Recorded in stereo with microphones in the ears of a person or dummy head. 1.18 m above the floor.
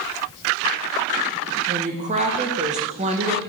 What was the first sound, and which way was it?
A woman speaking, 35° right (ahead or behind).